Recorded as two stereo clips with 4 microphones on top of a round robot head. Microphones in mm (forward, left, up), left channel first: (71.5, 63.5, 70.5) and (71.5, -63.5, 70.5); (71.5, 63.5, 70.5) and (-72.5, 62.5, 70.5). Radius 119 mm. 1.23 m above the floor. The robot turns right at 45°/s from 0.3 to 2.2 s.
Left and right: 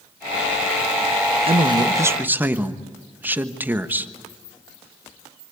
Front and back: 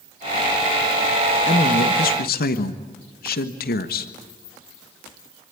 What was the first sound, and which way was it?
A man speaking, 50° right.